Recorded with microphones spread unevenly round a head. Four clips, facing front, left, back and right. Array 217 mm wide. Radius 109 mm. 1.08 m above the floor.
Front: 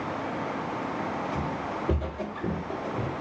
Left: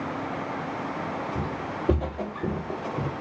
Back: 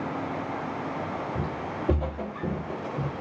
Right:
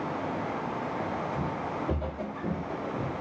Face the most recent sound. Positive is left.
turn(degrees=85)